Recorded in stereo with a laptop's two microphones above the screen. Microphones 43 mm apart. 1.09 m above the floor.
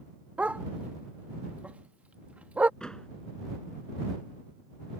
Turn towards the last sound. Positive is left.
turn(degrees=20)  # may be behind; listen again after turning